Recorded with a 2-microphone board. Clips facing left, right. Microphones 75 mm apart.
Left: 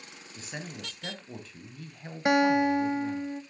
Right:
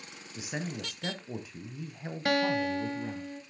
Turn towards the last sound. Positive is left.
turn(degrees=20)  # may be behind; listen again after turning